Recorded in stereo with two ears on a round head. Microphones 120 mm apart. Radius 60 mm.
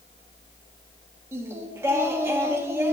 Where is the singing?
20° right (ahead or behind), 1.2 m.